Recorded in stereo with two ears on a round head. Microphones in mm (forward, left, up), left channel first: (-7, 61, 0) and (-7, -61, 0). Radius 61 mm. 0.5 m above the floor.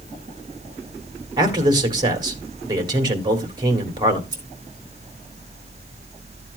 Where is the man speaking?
30° right (ahead or behind), 2.0 m.